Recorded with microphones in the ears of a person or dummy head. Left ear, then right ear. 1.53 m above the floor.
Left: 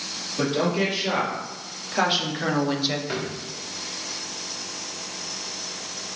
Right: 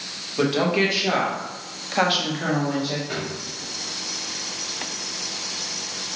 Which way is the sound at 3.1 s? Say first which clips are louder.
Even; 30° left (ahead or behind).